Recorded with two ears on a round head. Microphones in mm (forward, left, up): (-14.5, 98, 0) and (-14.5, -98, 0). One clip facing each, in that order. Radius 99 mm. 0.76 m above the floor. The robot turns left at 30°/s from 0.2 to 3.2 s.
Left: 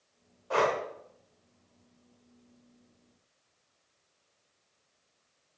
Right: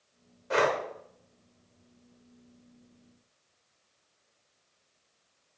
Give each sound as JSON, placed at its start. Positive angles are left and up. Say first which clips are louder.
{"t": 0.5, "sound": "breathing", "louder": "right 1 dB", "side_deg": -25, "distance_m": 1.9}